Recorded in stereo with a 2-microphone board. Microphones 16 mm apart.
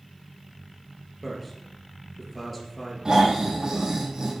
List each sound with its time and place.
1.2 s a man speaking: centre (ahead or behind), 3 m
3.0 s snoring: 55° right (ahead or behind), 3.5 m